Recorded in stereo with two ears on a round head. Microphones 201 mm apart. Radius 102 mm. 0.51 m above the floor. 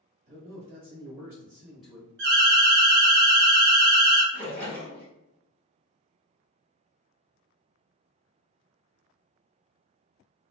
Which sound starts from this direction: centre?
A splash, at 4.3 s.